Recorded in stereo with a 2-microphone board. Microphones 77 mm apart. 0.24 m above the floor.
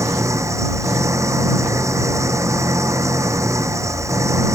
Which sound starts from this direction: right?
An engine running, at 0.0 s.